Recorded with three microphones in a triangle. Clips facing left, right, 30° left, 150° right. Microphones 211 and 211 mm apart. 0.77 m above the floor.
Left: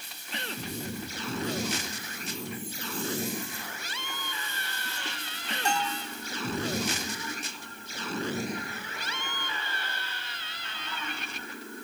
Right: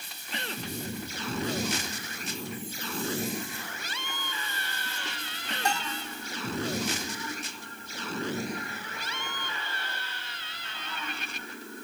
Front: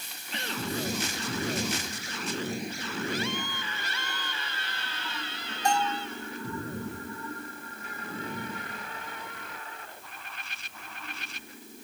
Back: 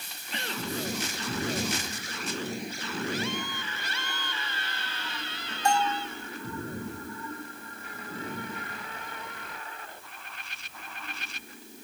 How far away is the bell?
About 2.5 m.